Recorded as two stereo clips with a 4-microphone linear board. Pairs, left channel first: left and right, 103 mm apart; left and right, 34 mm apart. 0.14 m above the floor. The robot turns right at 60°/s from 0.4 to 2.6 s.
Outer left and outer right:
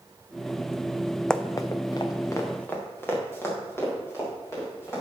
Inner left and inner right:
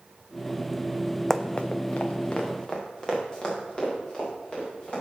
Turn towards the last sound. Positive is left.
turn(degrees=25)  # may be behind; listen again after turning